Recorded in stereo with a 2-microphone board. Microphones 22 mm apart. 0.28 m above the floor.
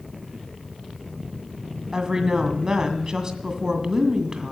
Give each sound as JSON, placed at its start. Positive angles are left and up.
{"t": 1.9, "sound": "a woman speaking", "side_deg": -30, "distance_m": 2.0}